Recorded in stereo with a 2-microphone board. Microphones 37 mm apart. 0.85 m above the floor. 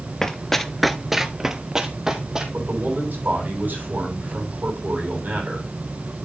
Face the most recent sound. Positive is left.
turn(degrees=-60)  # may be behind; listen again after turning